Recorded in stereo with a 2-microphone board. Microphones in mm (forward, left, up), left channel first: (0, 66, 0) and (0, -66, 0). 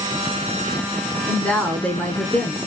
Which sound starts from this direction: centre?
A woman speaking, at 1.3 s.